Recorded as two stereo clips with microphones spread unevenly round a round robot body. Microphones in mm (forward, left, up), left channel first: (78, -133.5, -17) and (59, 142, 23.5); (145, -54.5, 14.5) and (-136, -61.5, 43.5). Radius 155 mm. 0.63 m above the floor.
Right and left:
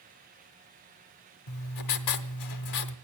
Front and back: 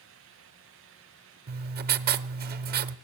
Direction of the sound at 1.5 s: 120° right.